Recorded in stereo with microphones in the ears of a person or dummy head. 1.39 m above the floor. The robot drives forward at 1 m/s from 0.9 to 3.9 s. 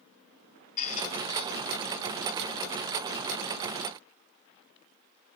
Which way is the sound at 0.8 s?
45° left (ahead or behind).